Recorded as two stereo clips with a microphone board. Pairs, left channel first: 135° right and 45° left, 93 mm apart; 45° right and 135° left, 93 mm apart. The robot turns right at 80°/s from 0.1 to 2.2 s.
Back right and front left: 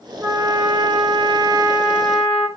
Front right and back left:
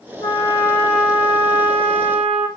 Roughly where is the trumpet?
Ahead.